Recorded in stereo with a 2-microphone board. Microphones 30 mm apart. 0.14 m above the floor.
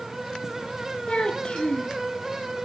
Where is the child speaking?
35° left (ahead or behind), 1.9 m.